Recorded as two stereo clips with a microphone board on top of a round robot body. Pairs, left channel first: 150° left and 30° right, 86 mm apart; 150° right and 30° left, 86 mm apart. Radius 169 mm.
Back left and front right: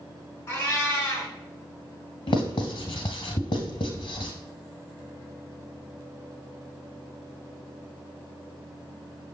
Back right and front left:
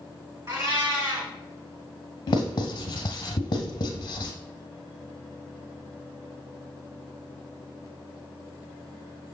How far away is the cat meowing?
About 2.5 m.